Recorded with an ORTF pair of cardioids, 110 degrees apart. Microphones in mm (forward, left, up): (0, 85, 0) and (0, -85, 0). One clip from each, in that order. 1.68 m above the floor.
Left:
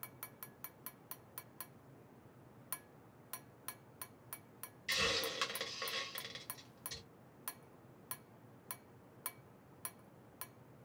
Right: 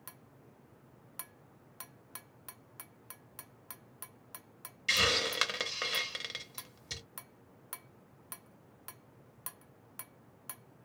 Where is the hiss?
50° right, 0.8 m.